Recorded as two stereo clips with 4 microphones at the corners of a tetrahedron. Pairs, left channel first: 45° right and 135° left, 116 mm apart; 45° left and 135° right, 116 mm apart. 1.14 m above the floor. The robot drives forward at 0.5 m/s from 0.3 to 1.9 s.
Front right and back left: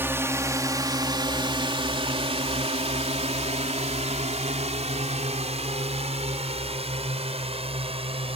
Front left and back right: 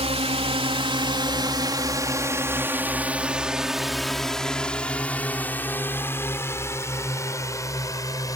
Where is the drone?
155° right; by 8.4 s 105° left.